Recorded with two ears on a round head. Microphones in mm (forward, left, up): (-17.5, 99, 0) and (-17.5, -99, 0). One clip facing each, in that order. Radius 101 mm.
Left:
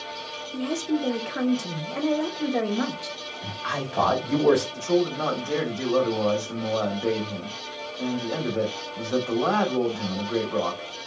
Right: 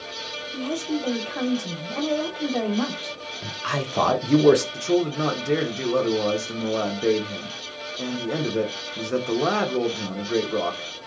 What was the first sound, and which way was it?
A woman speaking, 15° left (ahead or behind).